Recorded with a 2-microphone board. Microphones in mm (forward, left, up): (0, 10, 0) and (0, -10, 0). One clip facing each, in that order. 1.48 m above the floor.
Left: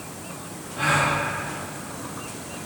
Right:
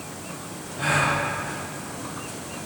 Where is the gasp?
75° left (ahead or behind), 3 m.